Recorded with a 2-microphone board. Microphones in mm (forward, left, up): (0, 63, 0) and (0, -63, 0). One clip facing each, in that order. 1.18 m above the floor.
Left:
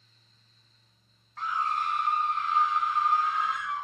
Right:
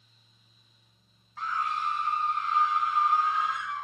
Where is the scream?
5° right (ahead or behind), 0.6 m; by 3.9 s 60° left (ahead or behind), 2.5 m.